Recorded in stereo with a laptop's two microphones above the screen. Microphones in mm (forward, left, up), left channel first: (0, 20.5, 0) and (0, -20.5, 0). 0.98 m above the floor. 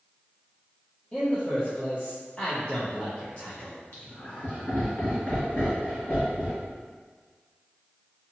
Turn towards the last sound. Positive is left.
turn(degrees=50)  # may be behind; listen again after turning